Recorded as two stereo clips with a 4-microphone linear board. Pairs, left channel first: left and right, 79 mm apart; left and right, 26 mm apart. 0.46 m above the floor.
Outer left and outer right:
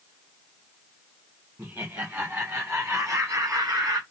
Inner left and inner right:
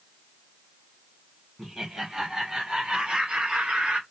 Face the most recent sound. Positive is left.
turn(degrees=-55)  # may be behind; listen again after turning